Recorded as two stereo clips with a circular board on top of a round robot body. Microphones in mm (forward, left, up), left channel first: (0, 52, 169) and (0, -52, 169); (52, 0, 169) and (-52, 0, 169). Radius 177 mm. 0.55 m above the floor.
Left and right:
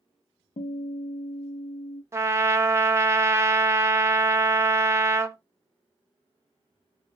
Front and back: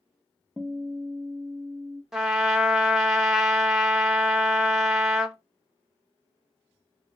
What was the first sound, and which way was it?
A guitar, 100° left.